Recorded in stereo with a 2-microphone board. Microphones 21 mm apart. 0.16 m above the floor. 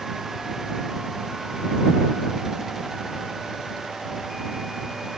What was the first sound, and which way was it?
Only background noise.